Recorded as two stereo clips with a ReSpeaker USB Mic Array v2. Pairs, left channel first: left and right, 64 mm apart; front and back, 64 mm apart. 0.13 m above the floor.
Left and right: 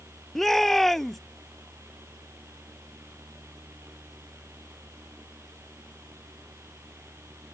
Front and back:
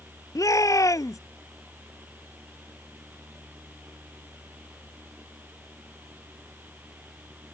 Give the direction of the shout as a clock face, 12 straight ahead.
12 o'clock.